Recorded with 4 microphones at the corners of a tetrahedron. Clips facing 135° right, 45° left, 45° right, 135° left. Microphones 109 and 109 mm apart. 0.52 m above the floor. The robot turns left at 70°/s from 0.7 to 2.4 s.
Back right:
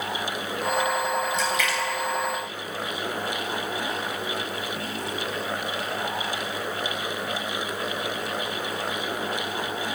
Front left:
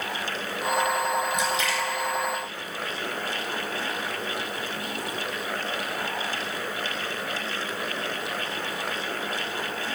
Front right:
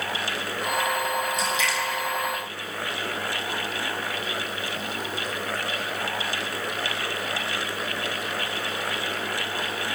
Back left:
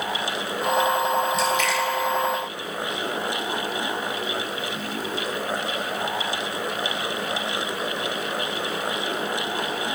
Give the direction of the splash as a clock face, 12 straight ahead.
8 o'clock.